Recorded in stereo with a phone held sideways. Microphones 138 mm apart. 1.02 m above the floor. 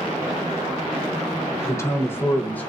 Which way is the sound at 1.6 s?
20° left (ahead or behind).